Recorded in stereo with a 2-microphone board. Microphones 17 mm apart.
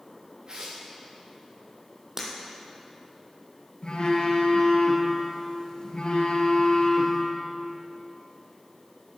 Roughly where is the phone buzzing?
Left.